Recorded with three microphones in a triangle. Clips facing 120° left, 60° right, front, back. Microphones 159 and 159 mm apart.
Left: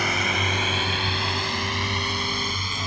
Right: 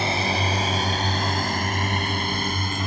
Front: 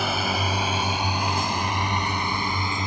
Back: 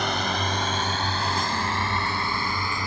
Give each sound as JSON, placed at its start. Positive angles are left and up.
{"t": 0.0, "sound": "a drone", "azimuth_deg": -80}